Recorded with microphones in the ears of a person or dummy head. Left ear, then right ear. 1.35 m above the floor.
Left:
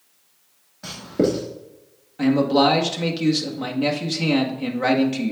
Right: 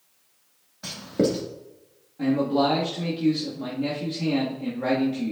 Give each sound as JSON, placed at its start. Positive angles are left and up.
{"t": 0.8, "sound": "writing", "side_deg": -10, "distance_m": 2.5}
{"t": 2.2, "sound": "a man speaking", "side_deg": 65, "distance_m": 1.9}